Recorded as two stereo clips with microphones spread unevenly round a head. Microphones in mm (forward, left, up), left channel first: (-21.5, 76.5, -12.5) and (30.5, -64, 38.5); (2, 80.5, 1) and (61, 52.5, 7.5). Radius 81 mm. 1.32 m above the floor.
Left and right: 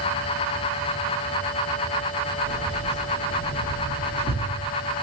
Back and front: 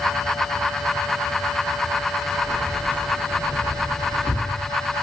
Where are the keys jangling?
85° right, 3.5 m; by 4.5 s 125° right, 1.6 m.